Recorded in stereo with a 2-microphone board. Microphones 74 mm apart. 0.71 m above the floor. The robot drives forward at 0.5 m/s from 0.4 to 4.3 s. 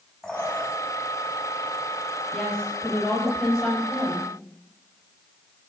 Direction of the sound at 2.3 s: 5° left (ahead or behind).